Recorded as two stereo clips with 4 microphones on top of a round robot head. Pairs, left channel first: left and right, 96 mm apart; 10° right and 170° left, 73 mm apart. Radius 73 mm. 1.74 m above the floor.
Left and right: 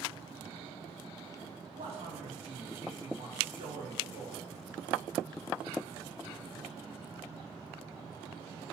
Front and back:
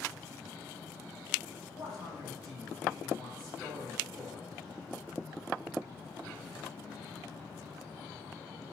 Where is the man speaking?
110° right, 3 m.